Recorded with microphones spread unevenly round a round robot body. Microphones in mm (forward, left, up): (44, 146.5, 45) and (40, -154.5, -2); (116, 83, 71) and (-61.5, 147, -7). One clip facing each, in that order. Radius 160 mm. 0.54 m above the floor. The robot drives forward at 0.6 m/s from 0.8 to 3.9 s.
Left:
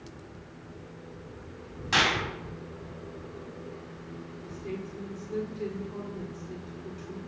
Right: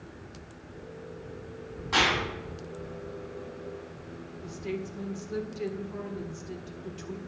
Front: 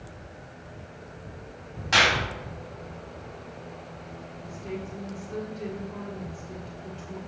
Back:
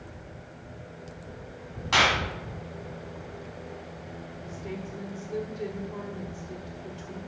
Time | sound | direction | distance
1.9 | a clap | 50° left | 4 m
4.4 | a woman speaking | 140° right | 1.3 m